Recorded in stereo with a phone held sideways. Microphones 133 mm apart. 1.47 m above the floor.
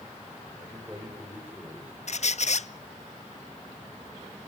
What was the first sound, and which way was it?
A man speaking, 15° right (ahead or behind).